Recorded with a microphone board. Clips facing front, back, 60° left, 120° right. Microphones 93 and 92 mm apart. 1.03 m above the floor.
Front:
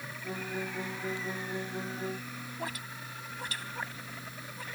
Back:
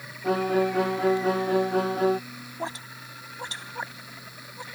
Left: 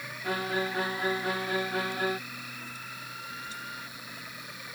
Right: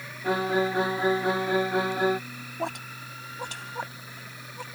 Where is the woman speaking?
115° right.